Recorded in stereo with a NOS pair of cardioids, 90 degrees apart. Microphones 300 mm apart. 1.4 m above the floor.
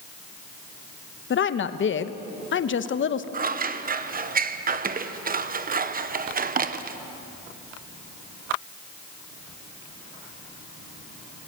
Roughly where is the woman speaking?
Ahead left.